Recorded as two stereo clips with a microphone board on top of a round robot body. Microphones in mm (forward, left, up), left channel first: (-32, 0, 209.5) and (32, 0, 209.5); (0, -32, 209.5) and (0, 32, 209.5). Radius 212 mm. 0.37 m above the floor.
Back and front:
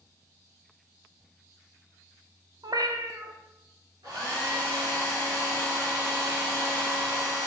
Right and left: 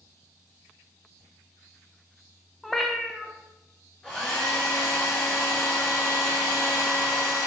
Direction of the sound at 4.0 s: 15° right.